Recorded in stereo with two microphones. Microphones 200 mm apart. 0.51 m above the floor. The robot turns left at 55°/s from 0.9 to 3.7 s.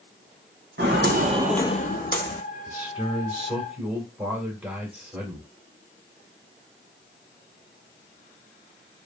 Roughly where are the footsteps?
Right.